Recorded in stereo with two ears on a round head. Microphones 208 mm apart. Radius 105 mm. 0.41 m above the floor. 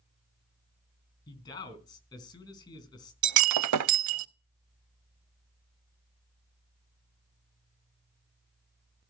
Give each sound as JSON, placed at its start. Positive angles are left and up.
{"t": 1.3, "sound": "a man speaking", "side_deg": 20, "distance_m": 3.5}
{"t": 3.2, "sound": "breaking glass", "side_deg": -90, "distance_m": 0.6}